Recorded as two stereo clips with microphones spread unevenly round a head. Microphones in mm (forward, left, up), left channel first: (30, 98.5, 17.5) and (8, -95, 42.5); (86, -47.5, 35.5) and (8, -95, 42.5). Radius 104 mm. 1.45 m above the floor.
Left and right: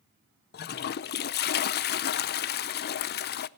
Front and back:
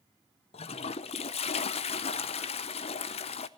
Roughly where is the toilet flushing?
Ahead left.